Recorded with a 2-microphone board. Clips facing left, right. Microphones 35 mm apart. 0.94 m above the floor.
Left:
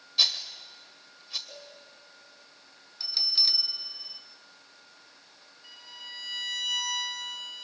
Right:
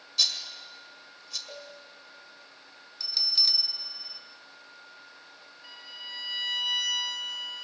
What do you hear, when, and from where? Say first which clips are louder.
0.2 s a rattle: left 2 dB; 25° left (ahead or behind), 1.6 m
1.5 s a cowbell: right 3 dB; 30° right (ahead or behind), 4 m
3.0 s a bell: even; 10° left (ahead or behind), 0.8 m
5.6 s a violin: right 2 dB; 20° right (ahead or behind), 2.5 m